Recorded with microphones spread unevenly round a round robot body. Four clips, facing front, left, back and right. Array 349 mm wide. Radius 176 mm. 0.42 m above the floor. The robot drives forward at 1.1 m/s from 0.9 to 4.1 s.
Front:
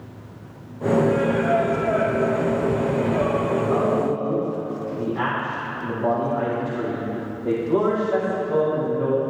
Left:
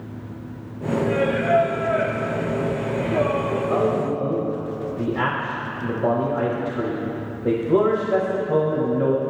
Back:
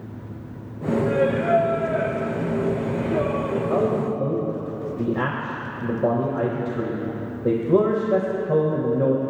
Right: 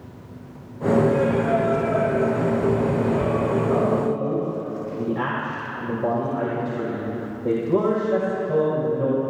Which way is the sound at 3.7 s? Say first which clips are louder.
Even, even; straight behind.